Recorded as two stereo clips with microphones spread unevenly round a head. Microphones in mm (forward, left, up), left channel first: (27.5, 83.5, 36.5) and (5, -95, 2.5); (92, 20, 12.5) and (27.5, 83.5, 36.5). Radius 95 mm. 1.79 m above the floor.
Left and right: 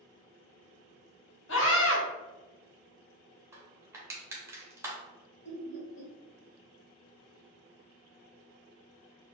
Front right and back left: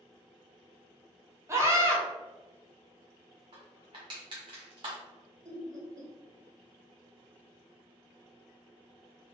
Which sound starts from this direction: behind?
Crushing, at 3.5 s.